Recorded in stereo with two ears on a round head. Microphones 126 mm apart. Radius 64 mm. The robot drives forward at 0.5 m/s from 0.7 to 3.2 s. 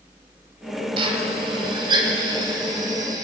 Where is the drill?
40° right (ahead or behind), 2.5 m; by 3.2 s 30° right (ahead or behind), 3.5 m.